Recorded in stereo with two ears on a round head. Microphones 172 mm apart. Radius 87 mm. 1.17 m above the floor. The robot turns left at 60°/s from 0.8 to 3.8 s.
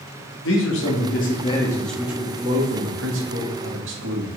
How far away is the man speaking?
About 1.9 m.